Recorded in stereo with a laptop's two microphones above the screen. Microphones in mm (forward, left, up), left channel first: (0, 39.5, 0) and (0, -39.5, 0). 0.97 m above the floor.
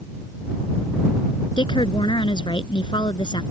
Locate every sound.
1.6 s a woman speaking: 80° left